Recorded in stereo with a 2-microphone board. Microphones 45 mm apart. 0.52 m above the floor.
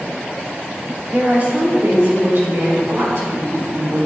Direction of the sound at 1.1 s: 25° right (ahead or behind).